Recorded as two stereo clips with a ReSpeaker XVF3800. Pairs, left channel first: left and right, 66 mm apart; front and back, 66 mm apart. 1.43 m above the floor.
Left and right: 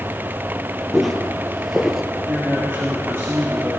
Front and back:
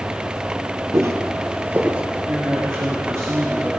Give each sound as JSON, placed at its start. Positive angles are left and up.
{"t": 0.9, "sound": "footsteps", "azimuth_deg": 180, "distance_m": 2.0}
{"t": 2.3, "sound": "a man speaking", "azimuth_deg": -140, "distance_m": 3.5}